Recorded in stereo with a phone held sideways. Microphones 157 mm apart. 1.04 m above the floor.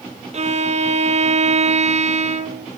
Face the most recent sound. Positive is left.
turn(degrees=-45)  # may be behind; listen again after turning